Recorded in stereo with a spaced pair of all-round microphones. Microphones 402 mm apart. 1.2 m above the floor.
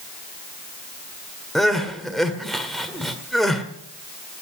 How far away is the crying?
About 1.7 m.